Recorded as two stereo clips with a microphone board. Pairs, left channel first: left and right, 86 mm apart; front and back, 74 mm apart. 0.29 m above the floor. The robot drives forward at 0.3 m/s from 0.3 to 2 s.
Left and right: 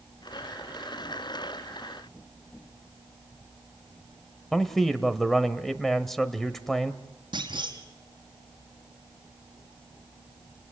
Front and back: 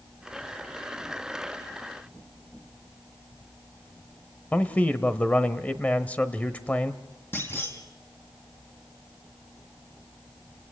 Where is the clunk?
60° right, 3 m.